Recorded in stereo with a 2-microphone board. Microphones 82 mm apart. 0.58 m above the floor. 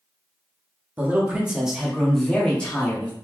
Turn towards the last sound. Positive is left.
turn(degrees=20)  # may be behind; listen again after turning